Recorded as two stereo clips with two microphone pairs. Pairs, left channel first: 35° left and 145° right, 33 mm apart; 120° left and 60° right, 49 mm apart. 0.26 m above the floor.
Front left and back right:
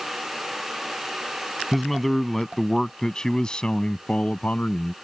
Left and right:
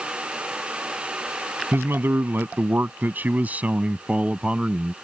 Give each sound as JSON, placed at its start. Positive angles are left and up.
{"t": 1.7, "sound": "a man speaking", "azimuth_deg": -55}